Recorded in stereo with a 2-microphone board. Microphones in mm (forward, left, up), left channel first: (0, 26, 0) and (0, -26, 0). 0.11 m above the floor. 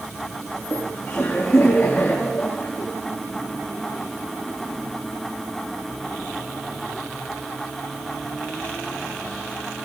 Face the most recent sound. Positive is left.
turn(degrees=50)  # may be behind; listen again after turning